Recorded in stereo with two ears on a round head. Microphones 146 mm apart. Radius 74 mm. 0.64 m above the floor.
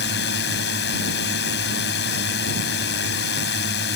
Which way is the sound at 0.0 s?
70° left (ahead or behind).